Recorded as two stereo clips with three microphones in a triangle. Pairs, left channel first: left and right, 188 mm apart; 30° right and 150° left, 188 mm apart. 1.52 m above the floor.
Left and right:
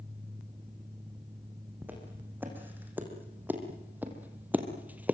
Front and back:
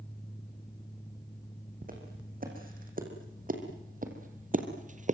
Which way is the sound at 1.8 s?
170° right.